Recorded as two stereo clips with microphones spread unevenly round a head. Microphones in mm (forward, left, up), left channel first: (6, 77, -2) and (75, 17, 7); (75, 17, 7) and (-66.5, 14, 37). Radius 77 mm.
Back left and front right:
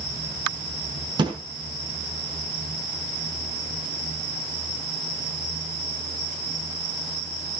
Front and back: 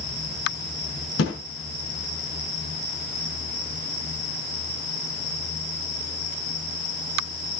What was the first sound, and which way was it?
A thud, 5° right.